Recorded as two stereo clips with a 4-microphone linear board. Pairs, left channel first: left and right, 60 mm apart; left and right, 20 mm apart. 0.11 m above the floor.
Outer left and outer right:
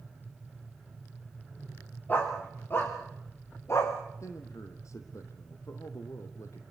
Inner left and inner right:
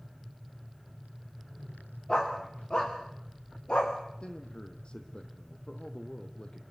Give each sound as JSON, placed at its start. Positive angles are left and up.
{"t": 2.1, "sound": "a dog barking", "side_deg": 30, "distance_m": 7.0}
{"t": 4.2, "sound": "a man speaking", "side_deg": 55, "distance_m": 3.0}